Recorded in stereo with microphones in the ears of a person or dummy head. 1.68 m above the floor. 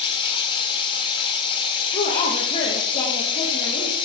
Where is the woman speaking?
30° left (ahead or behind), 1.0 m.